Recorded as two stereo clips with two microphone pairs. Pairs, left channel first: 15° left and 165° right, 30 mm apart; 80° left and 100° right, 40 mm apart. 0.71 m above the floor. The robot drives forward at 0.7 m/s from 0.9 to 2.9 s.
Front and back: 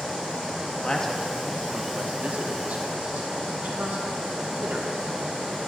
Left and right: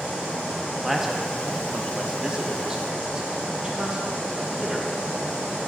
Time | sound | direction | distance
0.8 | a man speaking | 25° right | 0.5 m